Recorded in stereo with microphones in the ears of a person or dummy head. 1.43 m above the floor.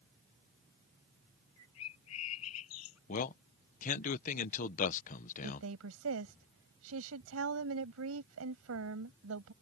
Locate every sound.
1.6 s a bird: 85° left
3.1 s a man speaking: 45° left (ahead or behind)
5.4 s a woman speaking: 80° right